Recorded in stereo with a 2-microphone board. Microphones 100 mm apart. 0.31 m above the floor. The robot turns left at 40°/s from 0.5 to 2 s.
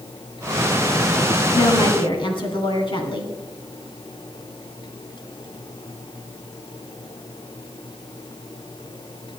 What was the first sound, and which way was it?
A woman speaking, 40° left (ahead or behind).